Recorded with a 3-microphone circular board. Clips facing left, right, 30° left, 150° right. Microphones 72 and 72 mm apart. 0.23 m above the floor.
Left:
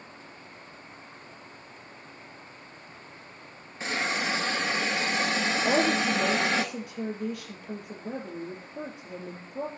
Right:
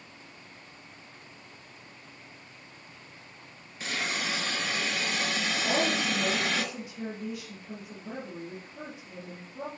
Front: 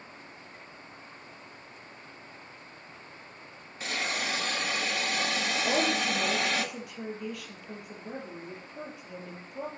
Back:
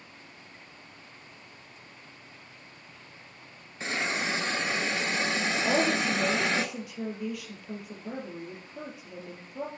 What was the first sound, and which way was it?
A hiss, 150° left.